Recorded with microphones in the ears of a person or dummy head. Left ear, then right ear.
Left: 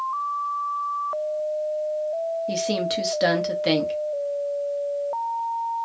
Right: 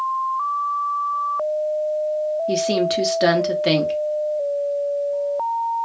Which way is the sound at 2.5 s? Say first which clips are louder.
Right 5 dB; centre (ahead or behind).